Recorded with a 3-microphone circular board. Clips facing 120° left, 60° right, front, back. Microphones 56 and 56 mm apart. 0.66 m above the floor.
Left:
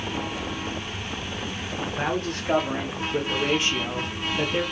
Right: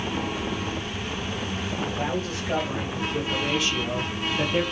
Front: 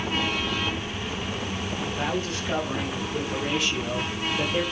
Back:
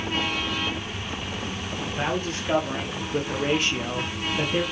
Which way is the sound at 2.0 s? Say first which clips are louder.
Left 1 dB, back 3 dB; 120° left.